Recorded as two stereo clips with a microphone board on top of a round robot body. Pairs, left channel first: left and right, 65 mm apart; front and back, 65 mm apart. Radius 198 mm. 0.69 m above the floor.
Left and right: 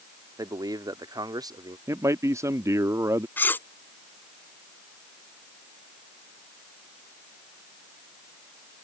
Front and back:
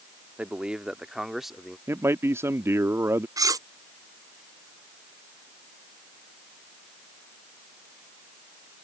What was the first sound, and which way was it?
A man speaking, 110° right.